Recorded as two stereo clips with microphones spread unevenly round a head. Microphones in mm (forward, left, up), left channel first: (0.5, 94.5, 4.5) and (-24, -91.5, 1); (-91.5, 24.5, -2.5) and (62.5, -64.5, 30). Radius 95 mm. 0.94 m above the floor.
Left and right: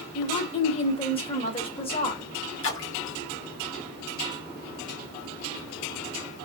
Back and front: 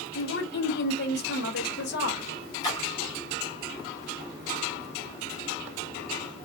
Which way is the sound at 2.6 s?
85° left.